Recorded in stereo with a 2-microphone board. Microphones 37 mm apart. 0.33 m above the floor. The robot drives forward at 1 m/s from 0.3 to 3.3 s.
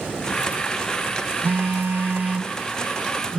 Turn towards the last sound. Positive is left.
turn(degrees=-25)  # may be behind; listen again after turning